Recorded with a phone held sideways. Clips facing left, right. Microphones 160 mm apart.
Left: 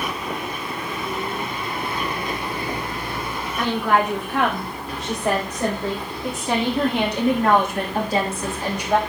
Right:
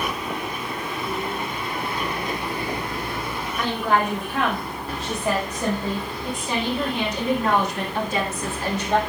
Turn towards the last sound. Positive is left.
turn(degrees=10)  # may be behind; listen again after turning